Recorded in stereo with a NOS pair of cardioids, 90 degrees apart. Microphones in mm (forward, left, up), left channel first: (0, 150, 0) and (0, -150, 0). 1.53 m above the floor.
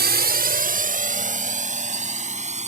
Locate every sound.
0.0 s a drone: 30° right; by 2.7 s 20° right